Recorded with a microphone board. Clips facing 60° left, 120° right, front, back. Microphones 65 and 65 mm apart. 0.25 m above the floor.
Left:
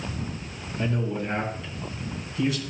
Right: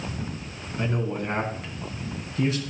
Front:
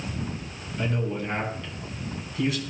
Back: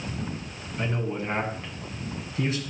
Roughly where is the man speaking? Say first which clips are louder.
Even, front 1 dB; behind right.